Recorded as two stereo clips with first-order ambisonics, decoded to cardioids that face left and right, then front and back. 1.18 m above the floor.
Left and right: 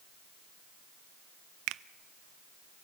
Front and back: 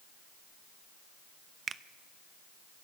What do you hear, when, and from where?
1.7 s a finger snap: 110° right, 0.6 m